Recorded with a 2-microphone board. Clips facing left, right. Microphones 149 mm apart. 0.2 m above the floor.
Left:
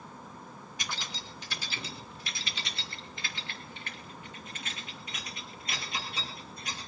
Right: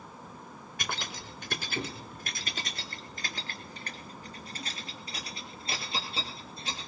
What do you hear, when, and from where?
0.8 s keys jangling: 60° right (ahead or behind), 1.9 m; by 6.9 s 30° right (ahead or behind), 4.5 m